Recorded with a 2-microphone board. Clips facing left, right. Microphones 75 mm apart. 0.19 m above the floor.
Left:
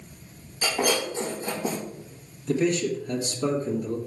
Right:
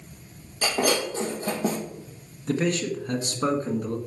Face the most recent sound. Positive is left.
turn(degrees=-55)  # may be behind; listen again after turning